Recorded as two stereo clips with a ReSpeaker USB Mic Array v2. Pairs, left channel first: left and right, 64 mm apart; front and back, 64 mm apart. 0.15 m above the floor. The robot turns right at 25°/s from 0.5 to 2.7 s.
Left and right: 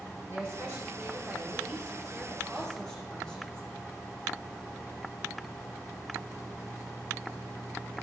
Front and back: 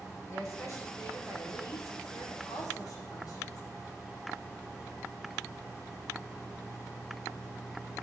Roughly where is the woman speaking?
Ahead right.